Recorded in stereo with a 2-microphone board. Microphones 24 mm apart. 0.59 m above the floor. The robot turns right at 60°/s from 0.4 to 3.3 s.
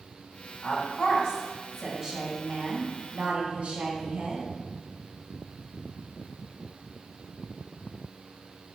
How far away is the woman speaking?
About 3 m.